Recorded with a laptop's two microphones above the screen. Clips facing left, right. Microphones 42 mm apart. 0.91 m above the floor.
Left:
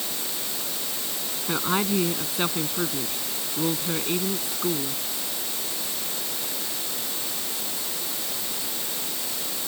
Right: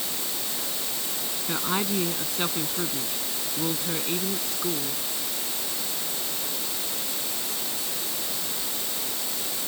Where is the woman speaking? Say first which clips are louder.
Left 3 dB; 10° left (ahead or behind).